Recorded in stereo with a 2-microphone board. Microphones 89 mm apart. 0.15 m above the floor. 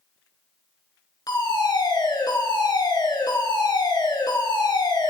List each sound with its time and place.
1.3 s a fire alarm: 50° left (ahead or behind), 3.5 m